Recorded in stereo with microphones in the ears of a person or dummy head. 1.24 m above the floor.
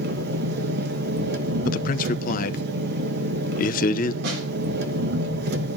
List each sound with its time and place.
0.0 s an engine running: 65° right (ahead or behind), 1.1 m
1.6 s a man speaking: 45° left (ahead or behind), 0.8 m
4.2 s a snare drum: 70° right (ahead or behind), 4 m